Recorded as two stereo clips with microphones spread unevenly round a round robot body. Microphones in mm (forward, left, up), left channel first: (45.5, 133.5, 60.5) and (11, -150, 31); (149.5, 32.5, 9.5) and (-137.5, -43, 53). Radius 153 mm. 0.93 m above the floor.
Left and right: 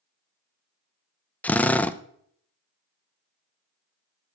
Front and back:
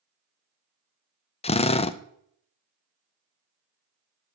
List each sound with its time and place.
1.4 s a drill: 10° right, 0.5 m